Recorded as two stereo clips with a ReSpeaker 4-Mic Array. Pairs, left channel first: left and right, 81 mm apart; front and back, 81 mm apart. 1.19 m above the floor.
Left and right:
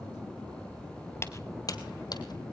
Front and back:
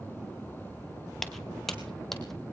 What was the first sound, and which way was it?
Footsteps, 85° left.